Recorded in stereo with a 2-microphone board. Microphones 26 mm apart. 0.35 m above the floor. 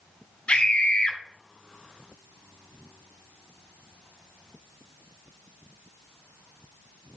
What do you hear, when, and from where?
0.5 s a scream: 45° left (ahead or behind), 2.5 m